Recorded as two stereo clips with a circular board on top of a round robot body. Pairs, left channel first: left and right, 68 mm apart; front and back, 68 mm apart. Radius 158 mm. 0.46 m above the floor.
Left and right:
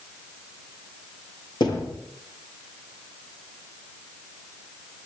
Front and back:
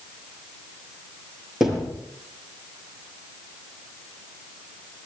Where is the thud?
95° left, 7.5 m.